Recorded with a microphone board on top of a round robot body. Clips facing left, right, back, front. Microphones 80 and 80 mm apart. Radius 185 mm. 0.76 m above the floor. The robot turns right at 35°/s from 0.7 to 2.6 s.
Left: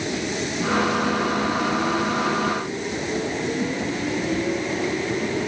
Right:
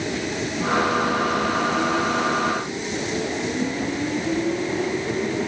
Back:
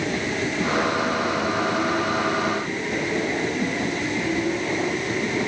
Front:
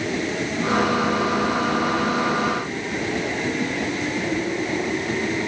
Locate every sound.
Only background noise.